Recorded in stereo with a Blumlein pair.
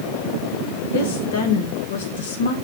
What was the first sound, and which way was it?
A woman speaking, 55° left.